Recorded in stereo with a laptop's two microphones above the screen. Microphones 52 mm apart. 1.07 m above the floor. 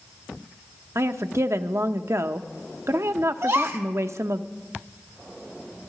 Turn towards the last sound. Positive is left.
turn(degrees=-65)  # may be behind; listen again after turning